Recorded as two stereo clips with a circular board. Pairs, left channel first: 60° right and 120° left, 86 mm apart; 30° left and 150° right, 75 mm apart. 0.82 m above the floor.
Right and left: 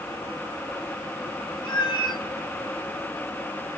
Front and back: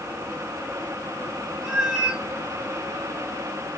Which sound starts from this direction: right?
A cat meowing, at 1.6 s.